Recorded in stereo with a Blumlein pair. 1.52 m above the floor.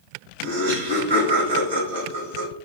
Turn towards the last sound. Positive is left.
turn(degrees=-60)